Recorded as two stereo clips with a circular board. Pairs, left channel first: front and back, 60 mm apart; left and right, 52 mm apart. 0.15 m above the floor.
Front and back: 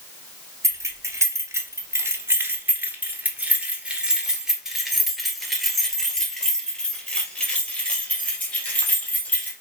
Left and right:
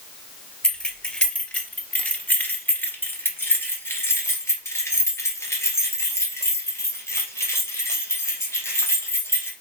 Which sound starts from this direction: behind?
Keys jangling, at 0.6 s.